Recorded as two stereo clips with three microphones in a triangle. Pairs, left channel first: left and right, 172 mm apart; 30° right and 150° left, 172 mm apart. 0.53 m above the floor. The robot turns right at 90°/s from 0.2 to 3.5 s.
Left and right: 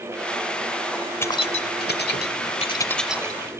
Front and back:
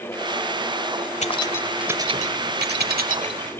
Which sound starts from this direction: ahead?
Keys jangling, at 1.2 s.